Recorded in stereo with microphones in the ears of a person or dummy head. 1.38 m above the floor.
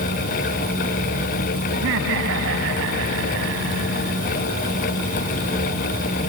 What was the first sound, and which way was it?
Laughter, 70° right (ahead or behind).